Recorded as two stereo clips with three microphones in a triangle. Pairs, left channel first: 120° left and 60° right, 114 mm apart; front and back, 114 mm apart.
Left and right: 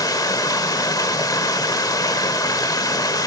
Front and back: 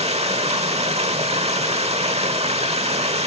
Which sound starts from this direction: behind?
Running water, at 0.0 s.